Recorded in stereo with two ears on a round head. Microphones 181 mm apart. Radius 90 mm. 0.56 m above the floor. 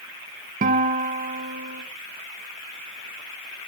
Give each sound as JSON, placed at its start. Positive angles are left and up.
{"t": 0.6, "sound": "a guitar", "side_deg": -40, "distance_m": 1.2}